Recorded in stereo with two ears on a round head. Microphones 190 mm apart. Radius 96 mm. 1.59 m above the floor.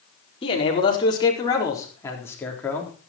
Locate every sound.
0.4 s a man speaking: 25° left (ahead or behind), 4.5 m; by 2.9 s 5° left (ahead or behind), 4 m